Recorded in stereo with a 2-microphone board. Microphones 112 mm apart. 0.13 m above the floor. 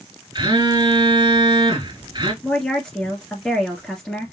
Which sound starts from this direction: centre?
A woman speaking, at 2.4 s.